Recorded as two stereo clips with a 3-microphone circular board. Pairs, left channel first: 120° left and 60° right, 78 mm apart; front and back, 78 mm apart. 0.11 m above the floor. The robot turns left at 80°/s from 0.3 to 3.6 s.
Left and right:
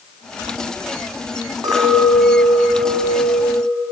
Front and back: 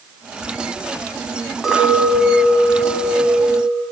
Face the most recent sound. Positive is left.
turn(degrees=110)